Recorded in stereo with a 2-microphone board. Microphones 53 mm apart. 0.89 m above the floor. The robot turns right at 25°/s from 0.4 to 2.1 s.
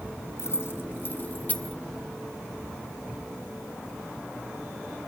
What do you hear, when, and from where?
0.4 s keys jangling: 55° left (ahead or behind), 0.9 m; by 1.8 s 20° left (ahead or behind), 0.9 m